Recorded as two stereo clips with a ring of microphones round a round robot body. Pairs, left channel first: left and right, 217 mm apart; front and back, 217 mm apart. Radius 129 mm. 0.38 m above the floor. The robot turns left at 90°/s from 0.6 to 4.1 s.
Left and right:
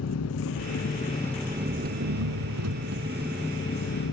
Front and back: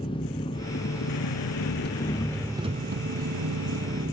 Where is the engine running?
70° left, 1.1 m; by 4.1 s 115° left, 1.1 m.